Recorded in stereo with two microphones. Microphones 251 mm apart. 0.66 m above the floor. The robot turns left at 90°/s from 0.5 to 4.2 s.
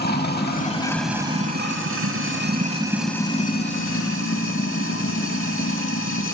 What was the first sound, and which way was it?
Running water, 50° left.